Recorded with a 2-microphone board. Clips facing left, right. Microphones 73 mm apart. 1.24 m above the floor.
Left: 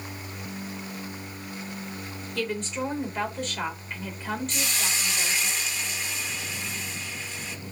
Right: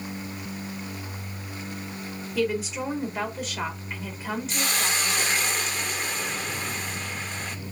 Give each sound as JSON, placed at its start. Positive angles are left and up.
{"t": 2.4, "sound": "a woman speaking", "side_deg": -5, "distance_m": 4.0}
{"t": 4.5, "sound": "a hiss", "side_deg": -45, "distance_m": 1.2}